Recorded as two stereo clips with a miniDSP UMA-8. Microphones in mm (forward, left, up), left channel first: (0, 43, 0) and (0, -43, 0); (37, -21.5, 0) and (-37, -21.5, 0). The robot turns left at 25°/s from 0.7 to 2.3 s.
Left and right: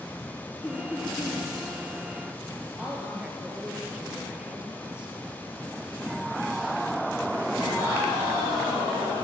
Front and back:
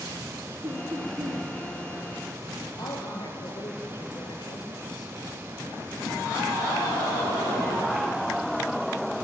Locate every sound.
0.6 s laughter: 160° left, 3 m; by 1.5 s 140° left, 3 m
2.8 s a woman speaking: 10° right, 3.5 m